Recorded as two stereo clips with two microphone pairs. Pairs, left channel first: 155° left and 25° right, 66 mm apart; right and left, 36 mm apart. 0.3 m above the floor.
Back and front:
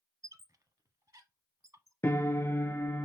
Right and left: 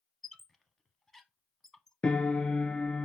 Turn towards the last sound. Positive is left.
turn(degrees=-150)